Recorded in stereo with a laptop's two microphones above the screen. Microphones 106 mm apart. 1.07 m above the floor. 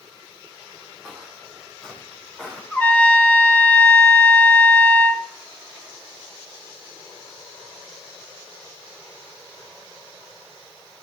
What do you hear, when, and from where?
1.0 s footsteps: 5° right (ahead or behind), 5.5 m; by 2.6 s 5° left (ahead or behind), 7 m
2.7 s a trumpet: 15° left (ahead or behind), 3 m